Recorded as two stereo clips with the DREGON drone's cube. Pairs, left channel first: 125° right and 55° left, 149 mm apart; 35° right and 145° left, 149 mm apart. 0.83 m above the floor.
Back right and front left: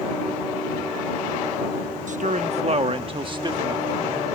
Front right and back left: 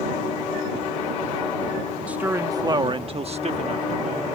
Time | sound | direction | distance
2.1 | a man speaking | 65° left | ?